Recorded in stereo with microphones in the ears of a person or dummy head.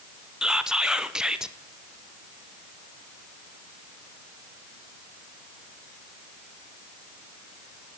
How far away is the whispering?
About 0.5 m.